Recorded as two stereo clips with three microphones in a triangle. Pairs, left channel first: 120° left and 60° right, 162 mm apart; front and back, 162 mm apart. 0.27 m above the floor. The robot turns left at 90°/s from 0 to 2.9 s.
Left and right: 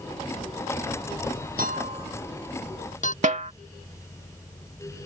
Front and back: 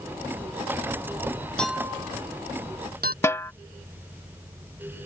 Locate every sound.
1.6 s a clink: 85° right; by 3.1 s 160° left
3.2 s a snare drum: 65° right